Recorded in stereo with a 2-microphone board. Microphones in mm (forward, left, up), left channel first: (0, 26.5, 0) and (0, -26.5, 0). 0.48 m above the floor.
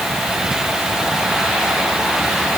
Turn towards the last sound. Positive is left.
No sound to turn to.